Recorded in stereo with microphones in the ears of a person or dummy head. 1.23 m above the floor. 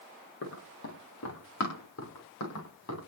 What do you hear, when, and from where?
0.4 s running footsteps: 65° left (ahead or behind), 7 m; by 3.0 s 80° left, 10 m